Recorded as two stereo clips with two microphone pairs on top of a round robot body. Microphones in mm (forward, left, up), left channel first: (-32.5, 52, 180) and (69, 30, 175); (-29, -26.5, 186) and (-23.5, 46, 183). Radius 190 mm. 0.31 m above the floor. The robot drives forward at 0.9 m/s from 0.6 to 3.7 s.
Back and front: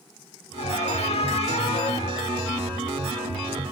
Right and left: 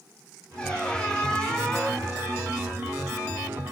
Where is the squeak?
175° right, 4 m.